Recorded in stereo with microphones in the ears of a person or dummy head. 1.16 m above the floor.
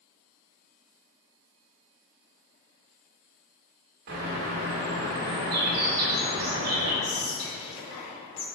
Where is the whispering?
25° left (ahead or behind), 1.4 m.